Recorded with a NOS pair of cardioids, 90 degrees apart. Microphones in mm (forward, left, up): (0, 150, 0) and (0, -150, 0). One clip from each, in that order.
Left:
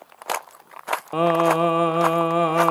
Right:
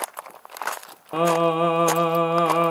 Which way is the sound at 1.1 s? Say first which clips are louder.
Left 1 dB; 10° left.